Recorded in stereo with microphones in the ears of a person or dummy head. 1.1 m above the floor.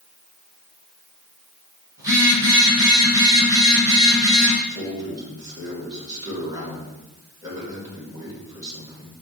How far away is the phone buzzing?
About 1.7 m.